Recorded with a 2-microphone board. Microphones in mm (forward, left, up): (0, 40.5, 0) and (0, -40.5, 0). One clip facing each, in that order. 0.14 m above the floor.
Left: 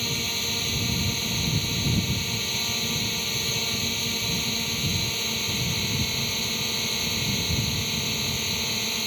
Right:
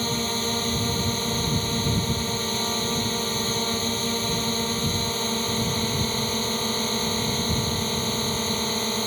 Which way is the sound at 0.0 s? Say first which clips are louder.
Right 6 dB; 35° right (ahead or behind).